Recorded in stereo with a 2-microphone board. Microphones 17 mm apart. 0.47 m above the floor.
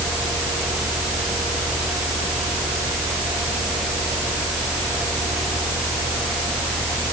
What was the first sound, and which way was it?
Only background noise.